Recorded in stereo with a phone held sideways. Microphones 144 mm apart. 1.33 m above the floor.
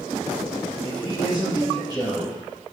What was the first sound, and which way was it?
A man speaking, 25° left (ahead or behind).